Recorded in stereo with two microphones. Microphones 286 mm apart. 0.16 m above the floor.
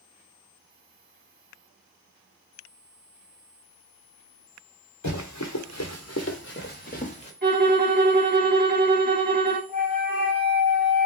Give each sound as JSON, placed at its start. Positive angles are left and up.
{"t": 5.0, "sound": "running footsteps", "side_deg": 85, "distance_m": 1.1}
{"t": 7.4, "sound": "a violin", "side_deg": -35, "distance_m": 0.7}
{"t": 9.7, "sound": "a flute", "side_deg": -5, "distance_m": 2.5}